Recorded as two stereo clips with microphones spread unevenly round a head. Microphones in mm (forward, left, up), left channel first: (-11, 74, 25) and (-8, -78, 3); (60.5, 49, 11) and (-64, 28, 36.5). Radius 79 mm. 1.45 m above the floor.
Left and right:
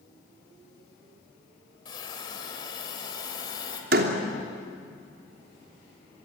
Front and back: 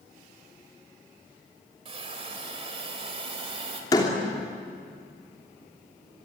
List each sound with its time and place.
1.9 s a hiss: 150° left, 3.5 m
3.9 s a door slam: 60° right, 3 m